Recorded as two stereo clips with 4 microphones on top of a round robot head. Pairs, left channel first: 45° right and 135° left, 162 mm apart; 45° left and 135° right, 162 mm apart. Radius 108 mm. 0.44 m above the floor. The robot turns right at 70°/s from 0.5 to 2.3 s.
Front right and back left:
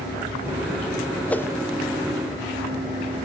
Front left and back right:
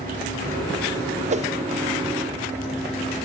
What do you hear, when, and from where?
1.3 s a whoosh: 125° right, 0.6 m; by 1.5 s 110° right, 0.6 m